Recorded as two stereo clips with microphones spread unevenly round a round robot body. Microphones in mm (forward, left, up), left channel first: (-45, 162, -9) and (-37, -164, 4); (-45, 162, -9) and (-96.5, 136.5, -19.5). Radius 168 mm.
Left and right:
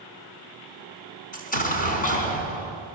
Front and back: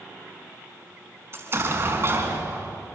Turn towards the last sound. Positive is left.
turn(degrees=155)